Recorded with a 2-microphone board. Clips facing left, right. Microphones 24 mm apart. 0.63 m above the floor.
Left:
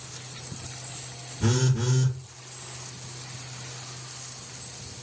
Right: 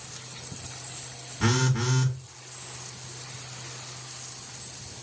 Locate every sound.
1.4 s a phone buzzing: 75° right (ahead or behind), 1.2 m